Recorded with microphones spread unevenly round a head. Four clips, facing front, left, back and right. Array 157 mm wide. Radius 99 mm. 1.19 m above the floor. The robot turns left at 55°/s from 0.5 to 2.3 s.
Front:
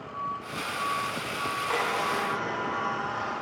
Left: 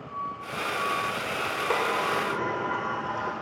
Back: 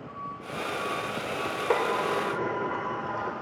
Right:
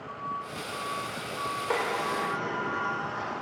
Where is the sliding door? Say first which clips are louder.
Left 3 dB, back 4 dB; 175° left, 3.5 m; by 3.3 s 145° left, 3.5 m.